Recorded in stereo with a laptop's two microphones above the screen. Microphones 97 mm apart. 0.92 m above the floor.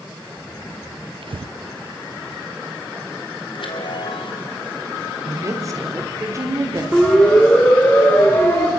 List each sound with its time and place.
1.2 s breathing: 65° right (ahead or behind), 0.5 m
3.5 s a chime: 60° left (ahead or behind), 3 m
5.2 s a woman speaking: 35° right (ahead or behind), 3.5 m
6.9 s a siren: 5° left (ahead or behind), 3.5 m; by 8.7 s 25° left (ahead or behind), 3.5 m